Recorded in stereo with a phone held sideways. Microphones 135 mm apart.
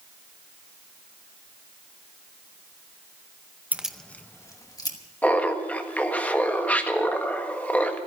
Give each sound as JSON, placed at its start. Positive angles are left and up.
{"t": 3.7, "sound": "keys jangling", "side_deg": -15, "distance_m": 0.6}
{"t": 5.2, "sound": "laughter", "side_deg": 10, "distance_m": 1.5}